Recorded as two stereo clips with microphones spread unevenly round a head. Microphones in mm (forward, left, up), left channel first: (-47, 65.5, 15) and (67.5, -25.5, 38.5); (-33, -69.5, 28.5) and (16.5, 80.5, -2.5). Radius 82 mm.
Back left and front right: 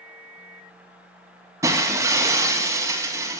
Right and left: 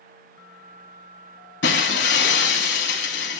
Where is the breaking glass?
110° right, 2.5 m.